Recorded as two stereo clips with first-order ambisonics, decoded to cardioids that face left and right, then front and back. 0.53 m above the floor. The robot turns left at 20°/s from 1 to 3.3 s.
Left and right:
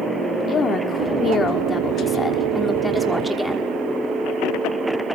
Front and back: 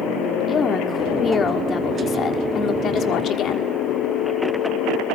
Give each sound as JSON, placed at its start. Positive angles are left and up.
{"t": 0.5, "sound": "a woman speaking", "azimuth_deg": 50, "distance_m": 1.4}